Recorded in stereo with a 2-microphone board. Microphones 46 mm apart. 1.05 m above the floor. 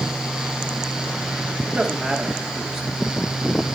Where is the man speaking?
5° right (ahead or behind), 2.5 m.